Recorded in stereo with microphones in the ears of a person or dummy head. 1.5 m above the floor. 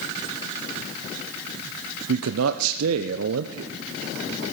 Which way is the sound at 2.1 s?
75° right (ahead or behind).